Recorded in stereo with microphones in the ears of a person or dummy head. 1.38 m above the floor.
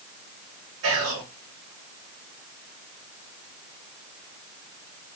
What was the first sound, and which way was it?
Whispering, 65° right (ahead or behind).